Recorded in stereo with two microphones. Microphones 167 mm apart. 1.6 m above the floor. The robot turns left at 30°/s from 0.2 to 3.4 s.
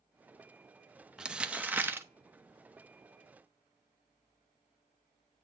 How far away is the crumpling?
About 0.9 m.